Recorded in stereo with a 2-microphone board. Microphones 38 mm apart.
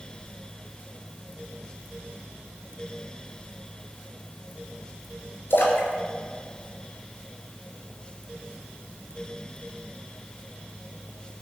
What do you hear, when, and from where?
5.5 s a splash: 85° left, 3.5 m